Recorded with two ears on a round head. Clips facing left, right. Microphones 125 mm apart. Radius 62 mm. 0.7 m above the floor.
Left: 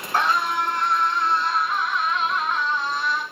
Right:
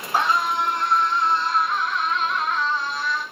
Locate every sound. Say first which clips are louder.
0.1 s a scream: right 1 dB; 10° right (ahead or behind), 8.5 m; by 3.2 s 20° left (ahead or behind), 8 m